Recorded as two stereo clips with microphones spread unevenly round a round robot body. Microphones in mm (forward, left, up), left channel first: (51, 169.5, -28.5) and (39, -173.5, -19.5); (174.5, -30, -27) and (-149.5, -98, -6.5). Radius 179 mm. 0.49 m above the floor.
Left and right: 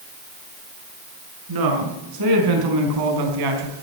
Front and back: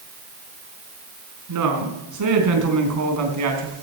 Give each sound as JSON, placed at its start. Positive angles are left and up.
{"t": 1.5, "sound": "a woman speaking", "azimuth_deg": -130, "distance_m": 4.5}